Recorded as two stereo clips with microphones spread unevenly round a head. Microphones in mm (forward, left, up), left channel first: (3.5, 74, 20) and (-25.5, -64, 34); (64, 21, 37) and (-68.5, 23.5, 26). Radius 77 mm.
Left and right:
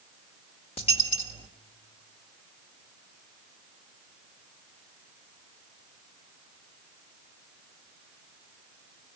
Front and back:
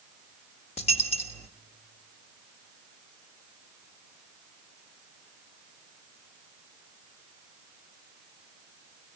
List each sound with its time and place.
0.8 s a dropped coin: 25° left, 1.4 m